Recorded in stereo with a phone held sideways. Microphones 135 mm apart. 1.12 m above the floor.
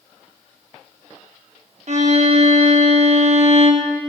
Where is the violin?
55° right (ahead or behind), 1.2 m.